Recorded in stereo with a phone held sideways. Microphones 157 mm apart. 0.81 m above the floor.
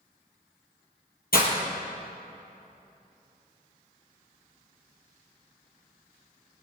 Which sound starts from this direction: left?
Breaking glass, at 1.3 s.